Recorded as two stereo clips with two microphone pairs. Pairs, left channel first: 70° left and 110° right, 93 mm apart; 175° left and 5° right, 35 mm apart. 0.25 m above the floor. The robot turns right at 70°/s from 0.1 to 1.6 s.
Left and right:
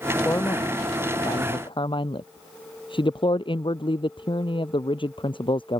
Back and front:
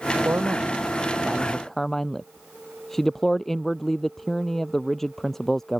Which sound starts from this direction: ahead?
A man speaking, at 0.2 s.